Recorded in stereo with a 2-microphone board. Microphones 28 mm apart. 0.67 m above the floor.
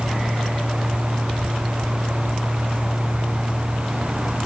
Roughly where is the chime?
I don't hear a chime.